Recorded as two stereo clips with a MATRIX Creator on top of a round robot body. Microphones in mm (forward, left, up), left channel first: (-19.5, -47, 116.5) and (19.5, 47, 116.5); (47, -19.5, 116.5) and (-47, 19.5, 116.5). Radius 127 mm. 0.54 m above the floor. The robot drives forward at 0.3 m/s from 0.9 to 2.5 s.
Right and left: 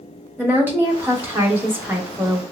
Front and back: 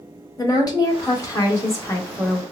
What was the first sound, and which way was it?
A woman speaking, 10° left.